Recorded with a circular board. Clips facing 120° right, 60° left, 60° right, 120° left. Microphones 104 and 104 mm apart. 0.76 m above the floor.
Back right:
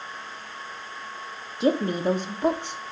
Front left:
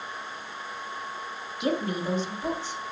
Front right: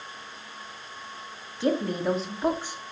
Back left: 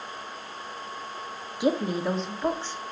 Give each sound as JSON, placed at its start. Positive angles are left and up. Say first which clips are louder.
{"t": 1.6, "sound": "a woman speaking", "louder": "back right 5 dB, even", "azimuth_deg": -170, "distance_m": 1.1}